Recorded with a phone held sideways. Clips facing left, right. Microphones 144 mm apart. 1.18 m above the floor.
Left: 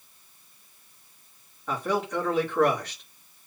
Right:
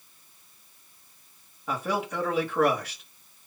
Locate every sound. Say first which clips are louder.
1.7 s a man speaking: left 2 dB; 10° right (ahead or behind), 2.5 m